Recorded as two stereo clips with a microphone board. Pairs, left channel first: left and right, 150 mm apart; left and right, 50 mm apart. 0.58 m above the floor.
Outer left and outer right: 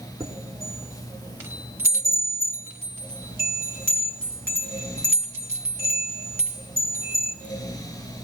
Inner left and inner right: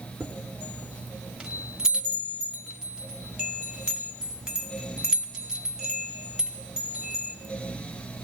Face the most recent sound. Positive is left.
turn(degrees=-15)  # may be behind; listen again after turning